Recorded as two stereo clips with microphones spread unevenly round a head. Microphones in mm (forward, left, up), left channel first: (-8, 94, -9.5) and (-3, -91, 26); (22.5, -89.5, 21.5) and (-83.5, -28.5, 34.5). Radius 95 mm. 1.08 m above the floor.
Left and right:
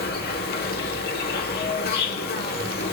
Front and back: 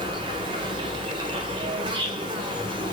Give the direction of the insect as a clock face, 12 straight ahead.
9 o'clock.